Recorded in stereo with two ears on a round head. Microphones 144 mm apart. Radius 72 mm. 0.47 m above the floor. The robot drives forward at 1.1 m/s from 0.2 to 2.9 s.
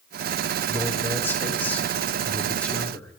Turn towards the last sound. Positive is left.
turn(degrees=10)  # may be behind; listen again after turning